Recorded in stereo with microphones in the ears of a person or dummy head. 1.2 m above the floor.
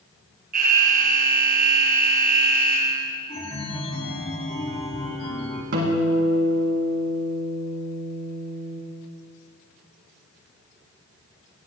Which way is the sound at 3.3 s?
30° left (ahead or behind).